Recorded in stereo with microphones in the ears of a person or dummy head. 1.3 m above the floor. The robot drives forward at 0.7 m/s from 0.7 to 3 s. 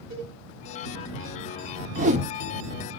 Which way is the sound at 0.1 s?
55° right (ahead or behind).